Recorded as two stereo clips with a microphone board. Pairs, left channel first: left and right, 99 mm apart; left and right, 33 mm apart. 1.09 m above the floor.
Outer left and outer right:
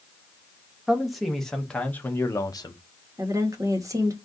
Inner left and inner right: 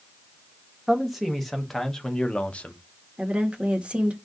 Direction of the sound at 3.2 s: 35° right (ahead or behind).